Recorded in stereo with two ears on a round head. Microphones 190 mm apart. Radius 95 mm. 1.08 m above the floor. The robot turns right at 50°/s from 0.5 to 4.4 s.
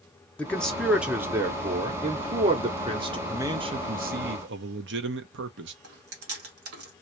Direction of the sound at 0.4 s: 5° left (ahead or behind).